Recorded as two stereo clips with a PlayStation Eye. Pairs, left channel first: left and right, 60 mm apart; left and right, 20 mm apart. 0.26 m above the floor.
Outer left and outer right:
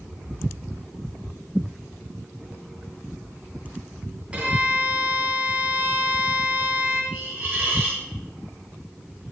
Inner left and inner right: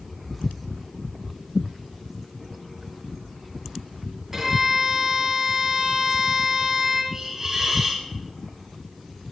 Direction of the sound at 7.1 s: 35° right (ahead or behind).